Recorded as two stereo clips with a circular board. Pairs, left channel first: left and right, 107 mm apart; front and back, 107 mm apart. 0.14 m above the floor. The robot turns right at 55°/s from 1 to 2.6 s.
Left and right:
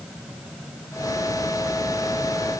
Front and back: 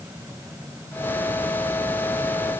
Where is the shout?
I don't hear a shout.